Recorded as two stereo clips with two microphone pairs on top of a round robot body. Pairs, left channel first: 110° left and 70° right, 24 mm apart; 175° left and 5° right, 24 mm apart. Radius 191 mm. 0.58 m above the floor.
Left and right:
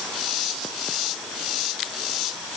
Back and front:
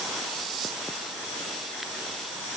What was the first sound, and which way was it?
Only background noise.